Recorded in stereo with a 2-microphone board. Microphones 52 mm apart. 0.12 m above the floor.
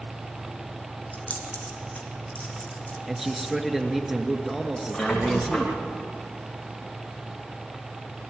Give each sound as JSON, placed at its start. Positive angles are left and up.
{"t": 1.1, "sound": "keys jangling", "side_deg": 30, "distance_m": 4.0}
{"t": 3.1, "sound": "a man speaking", "side_deg": -5, "distance_m": 2.5}
{"t": 4.9, "sound": "a squeak", "side_deg": 10, "distance_m": 7.5}